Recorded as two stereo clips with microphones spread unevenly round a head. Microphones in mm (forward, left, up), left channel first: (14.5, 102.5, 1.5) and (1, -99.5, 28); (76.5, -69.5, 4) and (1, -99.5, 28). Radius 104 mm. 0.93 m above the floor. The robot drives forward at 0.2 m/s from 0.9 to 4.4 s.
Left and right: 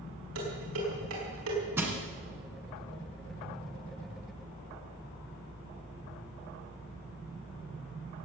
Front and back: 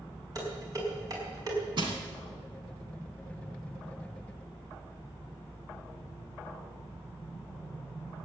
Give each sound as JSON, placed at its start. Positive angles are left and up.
{"t": 0.3, "sound": "dishes clattering", "azimuth_deg": -115, "distance_m": 5.0}
{"t": 1.8, "sound": "crushing", "azimuth_deg": -170, "distance_m": 2.0}